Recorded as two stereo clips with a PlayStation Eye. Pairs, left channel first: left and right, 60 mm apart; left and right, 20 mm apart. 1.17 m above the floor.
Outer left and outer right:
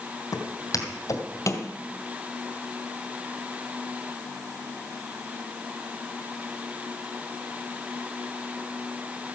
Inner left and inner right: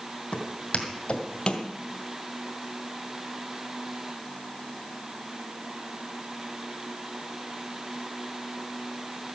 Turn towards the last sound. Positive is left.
turn(degrees=45)  # may be behind; listen again after turning